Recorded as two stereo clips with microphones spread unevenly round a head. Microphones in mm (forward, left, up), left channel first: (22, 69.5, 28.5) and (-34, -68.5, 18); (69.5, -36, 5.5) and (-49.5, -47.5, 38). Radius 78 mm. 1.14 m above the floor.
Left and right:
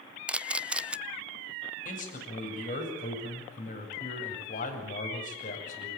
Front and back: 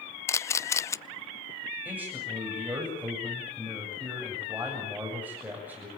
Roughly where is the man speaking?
Left.